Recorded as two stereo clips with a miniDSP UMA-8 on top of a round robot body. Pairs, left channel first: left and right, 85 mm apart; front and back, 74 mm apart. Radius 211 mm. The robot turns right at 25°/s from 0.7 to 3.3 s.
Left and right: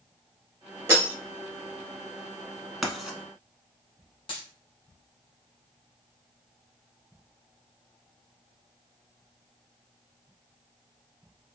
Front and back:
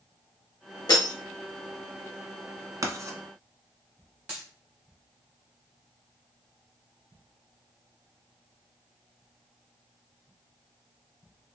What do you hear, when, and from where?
0.9 s breaking glass: 30° right, 0.9 m; by 1.1 s 25° right, 0.9 m
2.8 s writing: 175° right, 1.1 m; by 3.2 s 165° right, 1.1 m
4.3 s a dropped coin: 110° left, 0.6 m